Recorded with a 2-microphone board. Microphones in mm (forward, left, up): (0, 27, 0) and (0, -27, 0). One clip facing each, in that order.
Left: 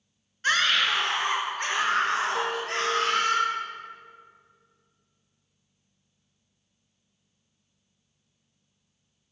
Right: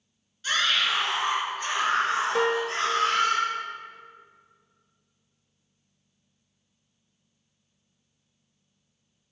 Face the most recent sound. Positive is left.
turn(degrees=-70)  # may be behind; listen again after turning